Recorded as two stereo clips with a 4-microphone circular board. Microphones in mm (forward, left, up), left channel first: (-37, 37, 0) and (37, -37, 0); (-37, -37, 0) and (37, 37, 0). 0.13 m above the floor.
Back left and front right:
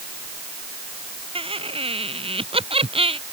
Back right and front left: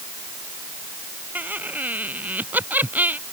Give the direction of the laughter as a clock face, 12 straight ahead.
1 o'clock.